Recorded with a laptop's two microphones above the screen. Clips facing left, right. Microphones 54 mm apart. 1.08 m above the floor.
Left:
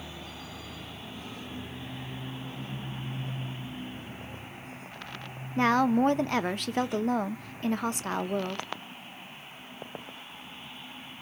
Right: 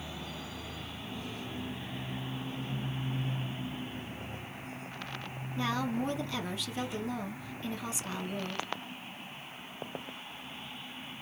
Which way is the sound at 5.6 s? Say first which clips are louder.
Left 9 dB; 55° left (ahead or behind).